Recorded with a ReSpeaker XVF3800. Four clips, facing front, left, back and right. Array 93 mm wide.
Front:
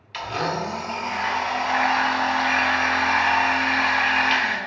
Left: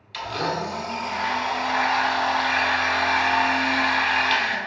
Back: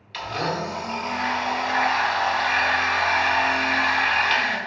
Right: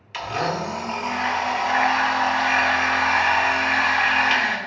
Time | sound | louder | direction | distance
0.1 | a blender | right 2 dB, front 1 dB | 65° right | 0.5 m